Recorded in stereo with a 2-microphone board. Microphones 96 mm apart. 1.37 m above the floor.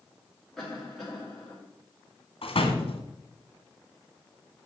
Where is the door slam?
80° left, 2 m.